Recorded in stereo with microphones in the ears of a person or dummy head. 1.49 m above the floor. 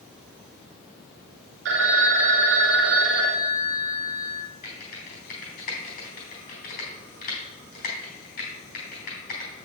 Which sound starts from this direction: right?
A phone ringing, at 1.6 s.